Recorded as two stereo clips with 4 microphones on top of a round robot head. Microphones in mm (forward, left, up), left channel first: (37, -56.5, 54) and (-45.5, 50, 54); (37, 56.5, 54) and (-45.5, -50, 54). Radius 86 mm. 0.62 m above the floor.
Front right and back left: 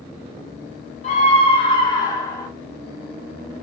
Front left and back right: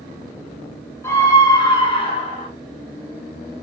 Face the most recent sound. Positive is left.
turn(degrees=20)